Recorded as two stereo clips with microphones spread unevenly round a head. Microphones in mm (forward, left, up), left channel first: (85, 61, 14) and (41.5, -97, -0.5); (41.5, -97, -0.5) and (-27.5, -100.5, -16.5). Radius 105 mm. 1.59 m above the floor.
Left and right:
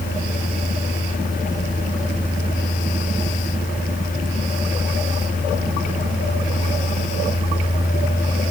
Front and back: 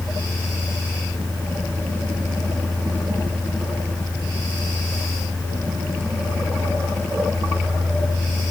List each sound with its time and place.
Only background noise.